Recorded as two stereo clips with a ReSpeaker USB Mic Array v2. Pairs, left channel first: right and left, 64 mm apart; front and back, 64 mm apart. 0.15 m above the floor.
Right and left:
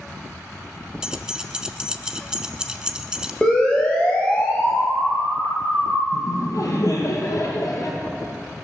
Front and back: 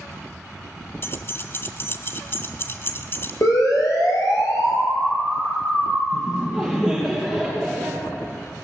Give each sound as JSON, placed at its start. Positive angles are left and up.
{"t": 1.0, "sound": "keys jangling", "azimuth_deg": 20, "distance_m": 0.9}
{"t": 3.4, "sound": "a siren", "azimuth_deg": -15, "distance_m": 5.0}
{"t": 6.1, "sound": "laughter", "azimuth_deg": -75, "distance_m": 3.0}